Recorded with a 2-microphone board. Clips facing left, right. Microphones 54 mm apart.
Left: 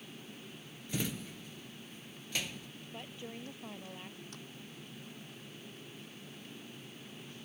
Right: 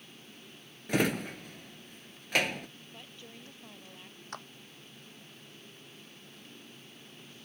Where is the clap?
60° right (ahead or behind).